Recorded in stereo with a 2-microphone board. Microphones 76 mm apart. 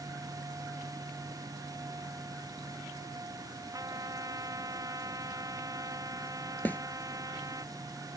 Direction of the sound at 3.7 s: 50° right (ahead or behind).